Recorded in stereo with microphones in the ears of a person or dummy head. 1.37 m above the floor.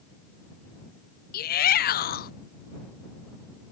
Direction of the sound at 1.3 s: 40° left (ahead or behind).